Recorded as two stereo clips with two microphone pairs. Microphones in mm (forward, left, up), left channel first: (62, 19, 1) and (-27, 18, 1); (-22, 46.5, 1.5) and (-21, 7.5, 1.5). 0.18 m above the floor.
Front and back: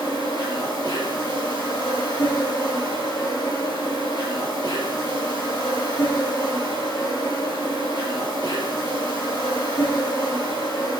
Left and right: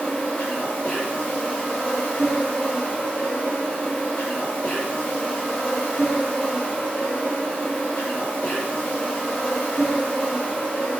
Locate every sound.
0.0 s an insect: 30° left, 5 m